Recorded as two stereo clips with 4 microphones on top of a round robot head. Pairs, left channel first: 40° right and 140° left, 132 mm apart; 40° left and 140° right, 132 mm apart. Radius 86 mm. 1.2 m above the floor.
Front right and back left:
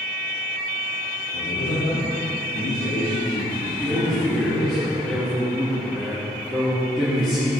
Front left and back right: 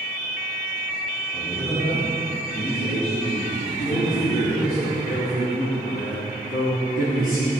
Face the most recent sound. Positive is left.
turn(degrees=45)